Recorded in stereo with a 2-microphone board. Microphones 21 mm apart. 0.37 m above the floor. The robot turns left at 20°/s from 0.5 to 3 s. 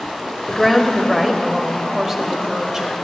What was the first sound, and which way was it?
A woman speaking, straight ahead.